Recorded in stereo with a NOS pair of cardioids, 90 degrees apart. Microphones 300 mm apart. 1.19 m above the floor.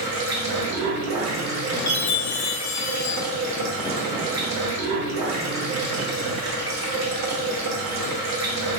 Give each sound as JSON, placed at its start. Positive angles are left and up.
{"t": 0.0, "sound": "running water", "azimuth_deg": -65, "distance_m": 1.1}
{"t": 1.9, "sound": "a chime", "azimuth_deg": 65, "distance_m": 0.7}